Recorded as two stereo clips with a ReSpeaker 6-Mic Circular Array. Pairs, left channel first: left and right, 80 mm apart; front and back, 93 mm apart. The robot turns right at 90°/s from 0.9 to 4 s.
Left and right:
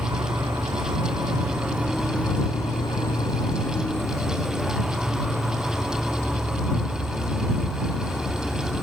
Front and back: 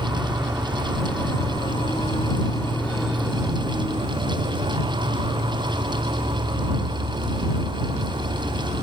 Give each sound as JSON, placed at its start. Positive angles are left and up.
{"t": 0.0, "sound": "an insect", "azimuth_deg": -100}